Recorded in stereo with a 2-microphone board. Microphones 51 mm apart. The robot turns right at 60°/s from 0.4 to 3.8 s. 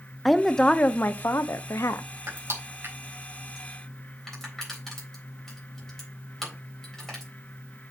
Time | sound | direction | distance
0.2 | a woman speaking | straight ahead | 0.7 m
2.3 | crushing | 85° right | 3.5 m